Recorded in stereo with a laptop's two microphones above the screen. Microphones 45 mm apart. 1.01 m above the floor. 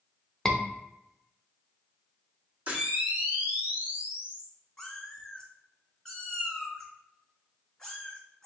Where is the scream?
10° left (ahead or behind), 0.6 m.